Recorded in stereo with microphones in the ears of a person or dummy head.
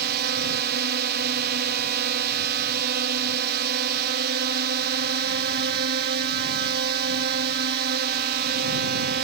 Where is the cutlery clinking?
I don't hear cutlery clinking.